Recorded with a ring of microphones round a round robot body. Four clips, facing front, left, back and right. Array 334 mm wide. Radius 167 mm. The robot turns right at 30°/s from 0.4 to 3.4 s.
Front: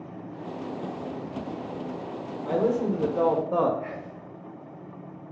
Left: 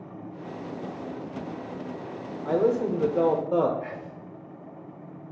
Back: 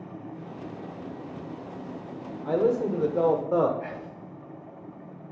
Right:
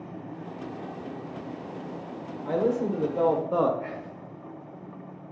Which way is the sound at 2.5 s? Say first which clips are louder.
Left 2 dB, back 1 dB; 125° left.